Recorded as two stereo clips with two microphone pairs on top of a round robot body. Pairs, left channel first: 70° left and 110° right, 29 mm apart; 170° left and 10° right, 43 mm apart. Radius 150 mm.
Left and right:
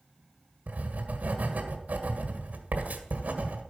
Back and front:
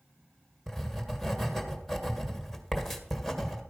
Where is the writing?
95° right, 1.8 m.